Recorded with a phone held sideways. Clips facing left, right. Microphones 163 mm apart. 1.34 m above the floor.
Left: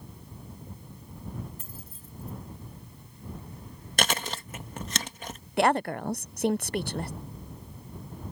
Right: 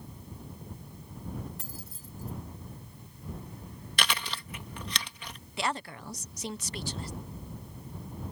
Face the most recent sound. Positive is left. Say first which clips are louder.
# left 10 dB
turn(degrees=55)  # may be behind; listen again after turning